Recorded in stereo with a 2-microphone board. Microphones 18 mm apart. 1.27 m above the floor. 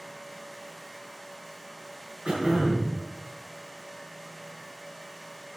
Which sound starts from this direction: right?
Throat clearing, at 2.2 s.